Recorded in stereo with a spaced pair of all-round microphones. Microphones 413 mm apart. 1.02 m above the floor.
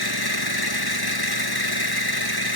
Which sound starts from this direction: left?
An engine running, at 0.0 s.